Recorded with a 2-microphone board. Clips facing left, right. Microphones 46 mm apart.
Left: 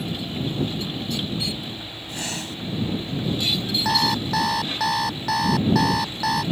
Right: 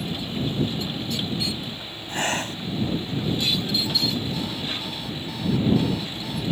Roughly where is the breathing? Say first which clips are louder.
Right 6 dB; right.